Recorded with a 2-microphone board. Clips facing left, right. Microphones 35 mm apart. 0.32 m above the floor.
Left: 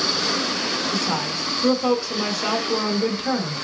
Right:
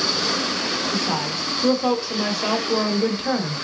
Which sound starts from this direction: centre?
A woman speaking, at 0.9 s.